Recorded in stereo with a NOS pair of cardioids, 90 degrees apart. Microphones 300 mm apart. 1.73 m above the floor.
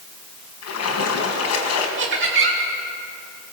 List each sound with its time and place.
0.6 s a splash: 60° left, 4.5 m
2.0 s laughter: 40° right, 2.5 m